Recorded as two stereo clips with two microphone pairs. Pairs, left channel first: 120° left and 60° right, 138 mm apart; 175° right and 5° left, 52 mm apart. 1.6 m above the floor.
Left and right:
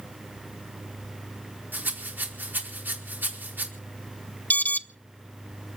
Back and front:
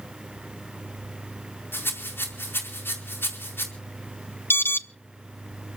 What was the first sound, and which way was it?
A rattle, 135° right.